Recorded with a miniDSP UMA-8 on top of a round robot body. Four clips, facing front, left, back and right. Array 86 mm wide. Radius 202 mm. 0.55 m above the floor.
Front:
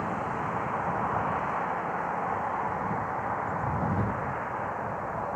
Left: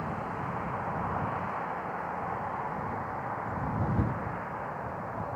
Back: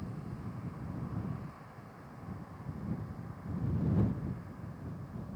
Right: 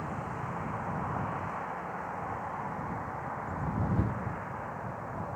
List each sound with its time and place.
0.0 s a vehicle: 10° left